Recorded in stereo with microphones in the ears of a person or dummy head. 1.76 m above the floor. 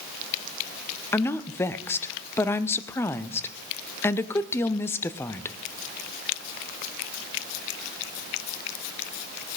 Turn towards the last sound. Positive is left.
turn(degrees=15)  # may be behind; listen again after turning